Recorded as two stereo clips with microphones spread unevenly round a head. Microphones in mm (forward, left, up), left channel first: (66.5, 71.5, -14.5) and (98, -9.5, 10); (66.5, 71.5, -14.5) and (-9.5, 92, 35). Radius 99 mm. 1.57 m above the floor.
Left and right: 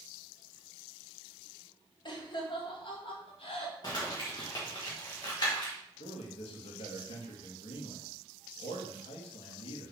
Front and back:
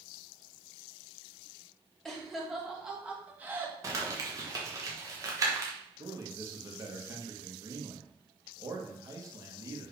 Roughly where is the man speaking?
Behind left.